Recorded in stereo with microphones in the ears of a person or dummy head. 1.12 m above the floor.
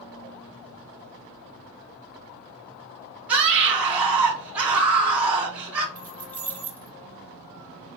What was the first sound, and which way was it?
A scream, 15° right (ahead or behind).